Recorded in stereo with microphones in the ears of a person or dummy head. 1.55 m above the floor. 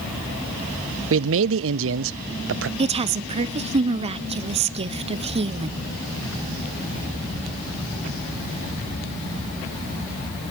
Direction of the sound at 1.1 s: 70° right (ahead or behind).